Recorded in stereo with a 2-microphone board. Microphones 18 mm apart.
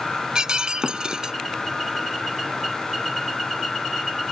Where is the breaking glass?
45° right (ahead or behind).